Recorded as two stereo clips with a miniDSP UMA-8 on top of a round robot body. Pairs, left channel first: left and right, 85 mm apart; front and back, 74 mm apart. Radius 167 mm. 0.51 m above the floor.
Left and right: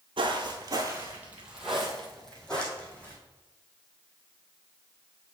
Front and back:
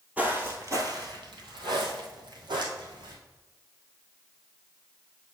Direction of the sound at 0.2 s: 110° right.